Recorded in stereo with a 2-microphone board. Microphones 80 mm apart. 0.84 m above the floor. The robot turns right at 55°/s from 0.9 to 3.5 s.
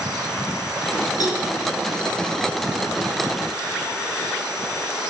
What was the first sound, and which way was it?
A cowbell, 50° left (ahead or behind).